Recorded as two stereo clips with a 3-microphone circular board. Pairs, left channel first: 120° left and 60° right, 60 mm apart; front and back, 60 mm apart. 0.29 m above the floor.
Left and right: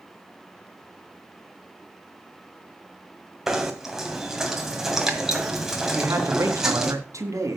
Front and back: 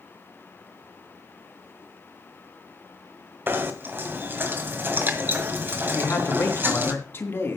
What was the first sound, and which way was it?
Knocking, 140° right.